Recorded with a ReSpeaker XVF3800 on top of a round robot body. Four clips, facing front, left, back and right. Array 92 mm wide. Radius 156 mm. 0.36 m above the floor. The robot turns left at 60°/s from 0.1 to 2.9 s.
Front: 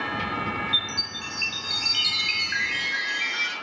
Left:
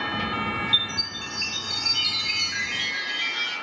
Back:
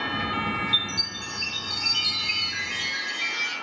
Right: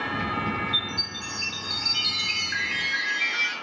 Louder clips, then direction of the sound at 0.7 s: Left 1 dB, even; 75° left.